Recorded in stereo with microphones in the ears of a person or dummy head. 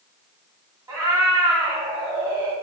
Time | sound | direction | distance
0.9 | a cat meowing | 15° right (ahead or behind) | 2.5 m